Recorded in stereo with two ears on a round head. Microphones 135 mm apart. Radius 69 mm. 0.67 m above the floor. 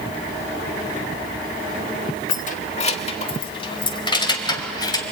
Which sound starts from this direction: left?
Keys jangling, at 2.3 s.